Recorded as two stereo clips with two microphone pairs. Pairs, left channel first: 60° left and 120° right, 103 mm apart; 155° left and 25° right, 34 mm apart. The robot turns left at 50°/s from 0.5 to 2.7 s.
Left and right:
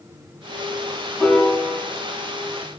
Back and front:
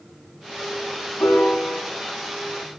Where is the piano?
160° left, 3.5 m; by 1.8 s 130° left, 3.5 m.